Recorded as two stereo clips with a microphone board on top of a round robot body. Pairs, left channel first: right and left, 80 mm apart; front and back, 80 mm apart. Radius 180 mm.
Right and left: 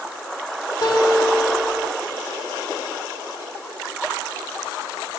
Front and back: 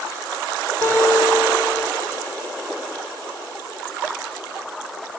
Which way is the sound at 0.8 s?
65° right.